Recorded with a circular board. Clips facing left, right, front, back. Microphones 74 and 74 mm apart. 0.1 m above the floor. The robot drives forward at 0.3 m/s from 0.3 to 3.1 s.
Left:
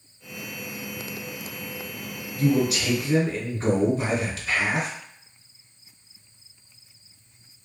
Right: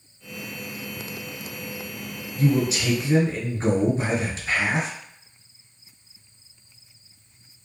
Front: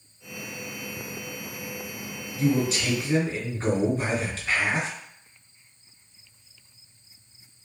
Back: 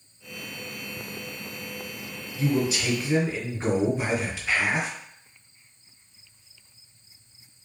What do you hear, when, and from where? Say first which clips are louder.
2.4 s a man speaking: even, front 1 dB; 90° right, 1.1 m; by 4.9 s 110° right, 1.2 m